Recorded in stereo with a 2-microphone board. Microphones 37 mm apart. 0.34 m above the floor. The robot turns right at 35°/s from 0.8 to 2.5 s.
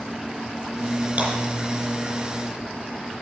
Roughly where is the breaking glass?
Right.